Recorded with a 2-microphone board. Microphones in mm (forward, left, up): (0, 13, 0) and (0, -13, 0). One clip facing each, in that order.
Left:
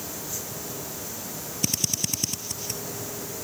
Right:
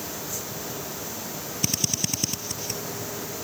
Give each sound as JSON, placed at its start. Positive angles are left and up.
{"t": 1.6, "sound": "a drill", "side_deg": -10}